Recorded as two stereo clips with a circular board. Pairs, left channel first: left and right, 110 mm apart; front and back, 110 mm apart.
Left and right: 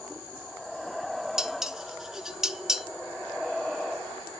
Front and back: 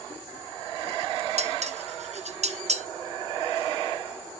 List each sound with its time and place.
1.4 s dishes clattering: 175° right, 0.6 m